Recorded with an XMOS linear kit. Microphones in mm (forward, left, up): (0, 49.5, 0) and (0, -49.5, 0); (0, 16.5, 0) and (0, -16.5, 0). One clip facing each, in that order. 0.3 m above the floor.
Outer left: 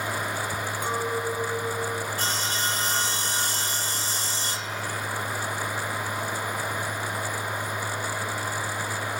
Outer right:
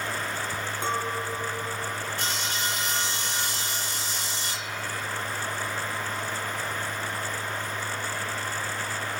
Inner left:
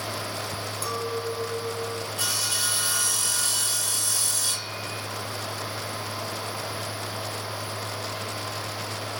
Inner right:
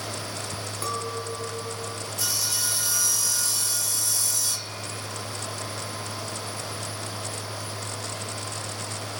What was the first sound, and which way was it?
A clink, 25° right (ahead or behind).